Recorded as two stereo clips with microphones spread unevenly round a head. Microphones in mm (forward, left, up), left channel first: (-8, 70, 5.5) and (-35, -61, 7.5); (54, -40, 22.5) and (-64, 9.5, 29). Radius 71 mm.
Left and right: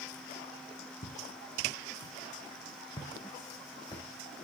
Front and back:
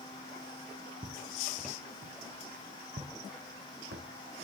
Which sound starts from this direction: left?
Footsteps, at 1.0 s.